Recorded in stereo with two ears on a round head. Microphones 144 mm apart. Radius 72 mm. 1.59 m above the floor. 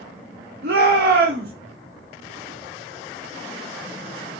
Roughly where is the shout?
Right.